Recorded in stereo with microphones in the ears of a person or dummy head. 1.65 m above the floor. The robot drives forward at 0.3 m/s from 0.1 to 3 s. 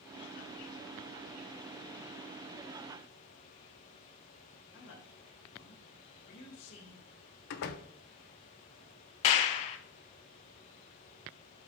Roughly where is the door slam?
Left.